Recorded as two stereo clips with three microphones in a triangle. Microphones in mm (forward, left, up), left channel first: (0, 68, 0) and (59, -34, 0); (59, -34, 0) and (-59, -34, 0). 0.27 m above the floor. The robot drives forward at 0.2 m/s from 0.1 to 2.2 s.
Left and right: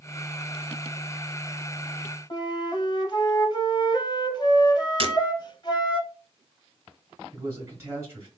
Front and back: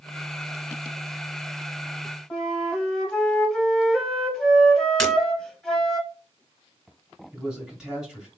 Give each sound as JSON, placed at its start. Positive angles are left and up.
{"t": 2.3, "sound": "a flute", "azimuth_deg": 85, "distance_m": 0.8}
{"t": 5.0, "sound": "breaking glass", "azimuth_deg": -85, "distance_m": 1.2}
{"t": 7.3, "sound": "a man speaking", "azimuth_deg": -100, "distance_m": 1.3}